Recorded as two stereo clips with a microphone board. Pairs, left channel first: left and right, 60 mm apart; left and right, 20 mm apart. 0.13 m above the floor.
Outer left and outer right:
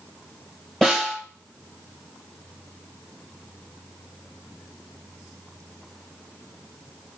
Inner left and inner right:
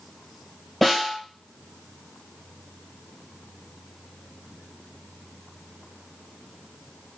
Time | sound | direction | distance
0.8 | a snare drum | 5° left (ahead or behind) | 2.5 m